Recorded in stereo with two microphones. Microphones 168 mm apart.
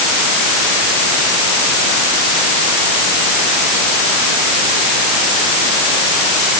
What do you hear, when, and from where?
Only background noise.